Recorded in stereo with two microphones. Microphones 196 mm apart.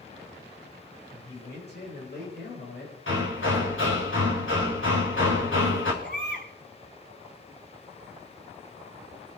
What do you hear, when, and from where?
1.1 s a man speaking: 60° left (ahead or behind), 10 m
3.1 s hammering: 85° left, 6 m
6.0 s a baby crying: 55° left (ahead or behind), 7.5 m